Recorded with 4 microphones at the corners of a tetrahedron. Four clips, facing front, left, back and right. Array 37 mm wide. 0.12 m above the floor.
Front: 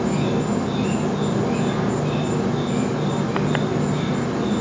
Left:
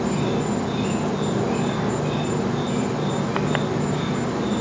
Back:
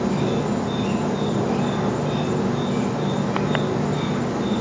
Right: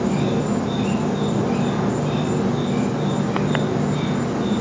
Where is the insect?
30° left, 1.4 m.